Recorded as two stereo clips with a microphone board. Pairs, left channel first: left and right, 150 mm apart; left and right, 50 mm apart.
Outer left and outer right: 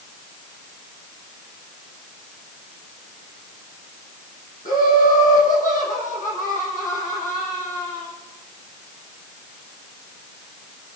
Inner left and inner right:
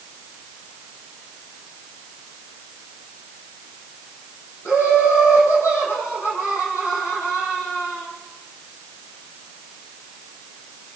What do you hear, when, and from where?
4.7 s laughter: 70° left (ahead or behind), 5 m